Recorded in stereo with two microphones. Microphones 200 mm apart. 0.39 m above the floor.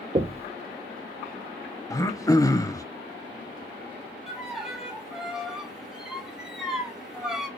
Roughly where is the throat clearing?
Centre.